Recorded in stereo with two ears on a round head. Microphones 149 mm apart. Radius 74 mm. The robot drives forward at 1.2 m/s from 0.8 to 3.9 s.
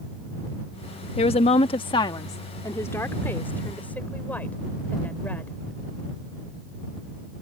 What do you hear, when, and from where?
1.2 s a woman speaking: 35° left (ahead or behind); by 5.5 s 10° left (ahead or behind)